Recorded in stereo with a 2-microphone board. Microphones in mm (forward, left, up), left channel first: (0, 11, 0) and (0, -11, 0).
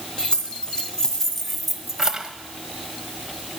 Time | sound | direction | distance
0.2 | keys jangling | 45° left (ahead or behind) | 2 m